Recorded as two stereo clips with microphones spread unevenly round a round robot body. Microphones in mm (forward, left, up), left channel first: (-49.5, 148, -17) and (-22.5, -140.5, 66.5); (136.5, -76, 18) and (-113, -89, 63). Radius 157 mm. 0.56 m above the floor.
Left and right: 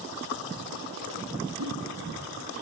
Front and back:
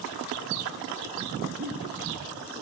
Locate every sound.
1.6 s a giggle: 125° right, 8 m